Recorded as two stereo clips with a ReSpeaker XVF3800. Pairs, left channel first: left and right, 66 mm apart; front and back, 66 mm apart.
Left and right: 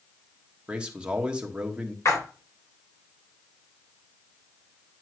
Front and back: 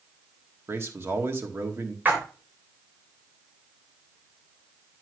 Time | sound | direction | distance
0.7 | a man speaking | 155° right | 1.1 m
2.0 | a splash | 120° left | 2.5 m